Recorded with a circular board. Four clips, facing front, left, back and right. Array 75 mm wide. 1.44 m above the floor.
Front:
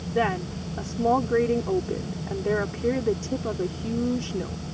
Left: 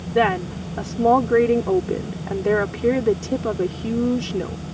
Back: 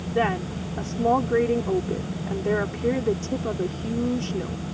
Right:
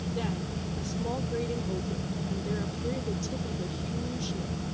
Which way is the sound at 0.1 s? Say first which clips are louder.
Left 19 dB, back 1 dB; 90° left.